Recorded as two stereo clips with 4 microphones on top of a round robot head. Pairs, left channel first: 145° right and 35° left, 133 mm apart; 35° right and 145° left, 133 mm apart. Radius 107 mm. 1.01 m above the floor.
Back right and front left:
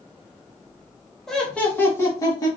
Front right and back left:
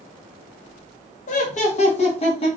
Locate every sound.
1.3 s laughter: 55° right, 1.5 m; by 2.5 s 80° right, 1.6 m